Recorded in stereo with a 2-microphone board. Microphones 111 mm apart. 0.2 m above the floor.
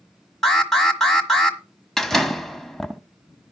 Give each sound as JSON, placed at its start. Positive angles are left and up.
{"t": 0.4, "sound": "an alarm", "side_deg": 5, "distance_m": 1.5}
{"t": 2.0, "sound": "a door slam", "side_deg": 5, "distance_m": 0.7}